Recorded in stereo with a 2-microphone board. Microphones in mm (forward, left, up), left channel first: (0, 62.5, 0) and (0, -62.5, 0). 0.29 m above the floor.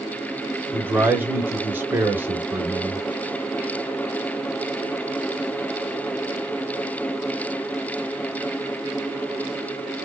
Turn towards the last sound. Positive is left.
turn(degrees=-15)  # may be behind; listen again after turning